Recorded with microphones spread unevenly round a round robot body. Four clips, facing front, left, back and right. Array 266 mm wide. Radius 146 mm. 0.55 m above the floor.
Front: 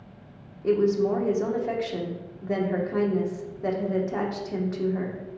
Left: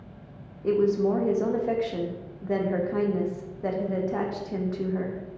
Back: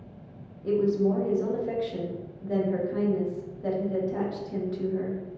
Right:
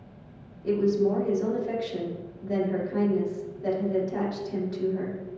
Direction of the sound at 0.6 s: 30° left.